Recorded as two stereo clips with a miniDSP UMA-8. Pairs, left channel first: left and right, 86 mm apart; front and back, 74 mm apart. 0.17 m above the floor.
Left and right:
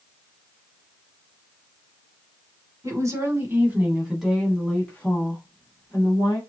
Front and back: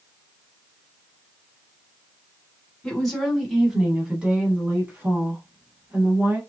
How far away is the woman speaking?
About 1.3 m.